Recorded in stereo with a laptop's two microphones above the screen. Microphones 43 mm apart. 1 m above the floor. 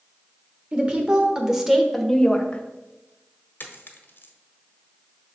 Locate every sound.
0.7 s a woman speaking: 30° right (ahead or behind), 1.7 m; by 2.6 s 30° left (ahead or behind), 1.0 m
3.6 s a dropped coin: 50° left (ahead or behind), 1.0 m